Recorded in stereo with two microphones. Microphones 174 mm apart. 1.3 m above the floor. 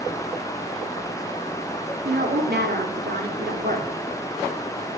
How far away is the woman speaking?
About 3 m.